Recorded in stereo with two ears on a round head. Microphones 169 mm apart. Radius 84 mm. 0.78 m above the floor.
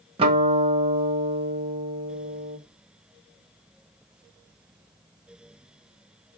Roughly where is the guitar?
Right.